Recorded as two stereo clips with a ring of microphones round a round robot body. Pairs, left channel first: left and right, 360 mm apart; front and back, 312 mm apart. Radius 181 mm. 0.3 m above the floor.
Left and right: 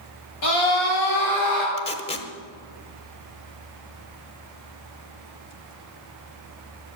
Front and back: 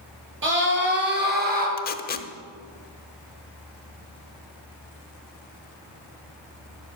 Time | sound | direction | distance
0.4 | a scream | 130° left | 6.5 m
1.8 | tape being pulled | 30° left | 0.8 m